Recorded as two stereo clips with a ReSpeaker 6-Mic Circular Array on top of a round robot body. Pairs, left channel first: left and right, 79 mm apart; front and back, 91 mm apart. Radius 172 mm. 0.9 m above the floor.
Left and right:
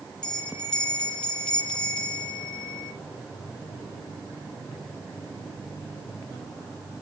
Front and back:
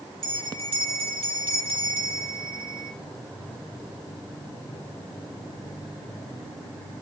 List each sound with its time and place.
0.2 s a bell: 170° left, 3 m